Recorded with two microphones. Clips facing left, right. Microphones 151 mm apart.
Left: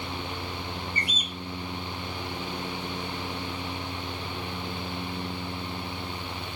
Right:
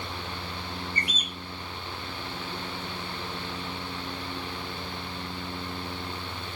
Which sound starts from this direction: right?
A bird, at 0.9 s.